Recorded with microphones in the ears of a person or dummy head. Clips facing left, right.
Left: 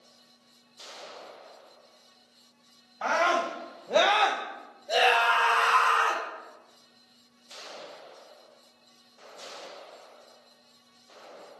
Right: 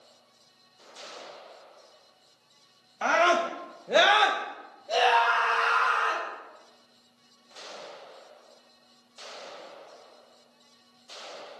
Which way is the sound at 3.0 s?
35° right (ahead or behind).